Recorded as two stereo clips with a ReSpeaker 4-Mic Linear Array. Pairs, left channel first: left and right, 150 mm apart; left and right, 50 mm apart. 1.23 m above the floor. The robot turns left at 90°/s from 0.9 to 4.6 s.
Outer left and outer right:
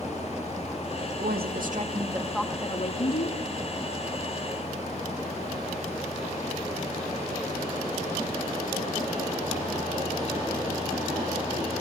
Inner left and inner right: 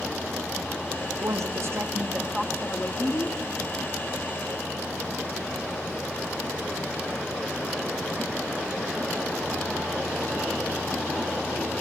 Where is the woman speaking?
75° right, 2 m; by 3.4 s 85° left, 2 m.